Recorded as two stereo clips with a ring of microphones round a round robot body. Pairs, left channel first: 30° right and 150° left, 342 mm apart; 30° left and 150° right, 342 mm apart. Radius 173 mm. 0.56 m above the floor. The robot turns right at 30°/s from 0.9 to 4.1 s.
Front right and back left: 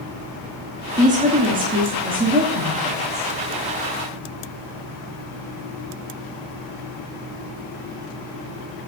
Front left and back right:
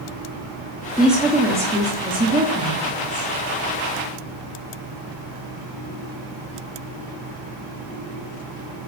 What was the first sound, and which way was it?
A woman speaking, 120° left.